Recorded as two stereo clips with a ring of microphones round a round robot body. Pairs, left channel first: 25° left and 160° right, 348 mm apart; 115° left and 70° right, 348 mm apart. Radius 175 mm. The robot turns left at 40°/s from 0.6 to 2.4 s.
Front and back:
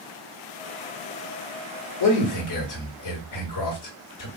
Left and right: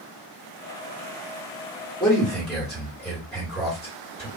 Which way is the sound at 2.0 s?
40° left.